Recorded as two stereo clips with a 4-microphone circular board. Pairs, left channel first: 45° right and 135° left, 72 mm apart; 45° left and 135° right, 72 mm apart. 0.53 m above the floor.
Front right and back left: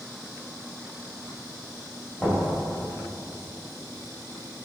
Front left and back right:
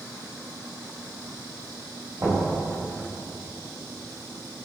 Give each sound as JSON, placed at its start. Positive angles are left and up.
{"t": 2.2, "sound": "knocking", "azimuth_deg": -115, "distance_m": 1.8}